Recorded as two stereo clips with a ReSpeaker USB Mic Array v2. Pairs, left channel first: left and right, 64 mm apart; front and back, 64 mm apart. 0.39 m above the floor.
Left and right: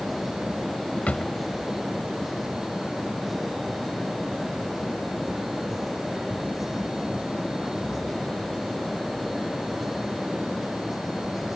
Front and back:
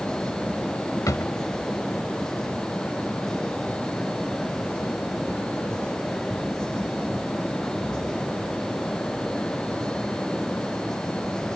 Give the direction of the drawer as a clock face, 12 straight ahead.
11 o'clock.